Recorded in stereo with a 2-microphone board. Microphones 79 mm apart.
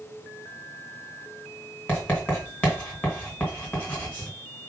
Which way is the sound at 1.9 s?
15° left (ahead or behind).